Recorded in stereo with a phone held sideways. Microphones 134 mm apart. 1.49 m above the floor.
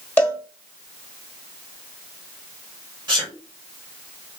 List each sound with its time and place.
0.2 s a cowbell: 15° left (ahead or behind), 1.5 m
3.1 s a sneeze: 20° right (ahead or behind), 1.5 m